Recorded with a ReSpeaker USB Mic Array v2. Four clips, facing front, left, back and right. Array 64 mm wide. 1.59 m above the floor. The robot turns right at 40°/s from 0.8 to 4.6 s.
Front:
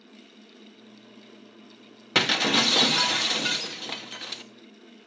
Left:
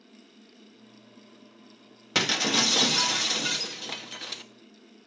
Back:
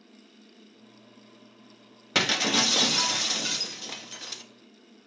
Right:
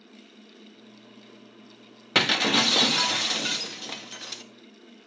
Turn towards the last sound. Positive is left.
turn(degrees=35)